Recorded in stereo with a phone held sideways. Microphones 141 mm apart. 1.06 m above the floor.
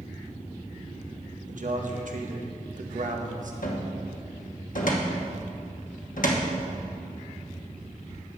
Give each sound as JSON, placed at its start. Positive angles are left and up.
{"t": 1.5, "sound": "a man speaking", "side_deg": -65, "distance_m": 1.1}
{"t": 3.6, "sound": "a cupboard door", "side_deg": 70, "distance_m": 1.3}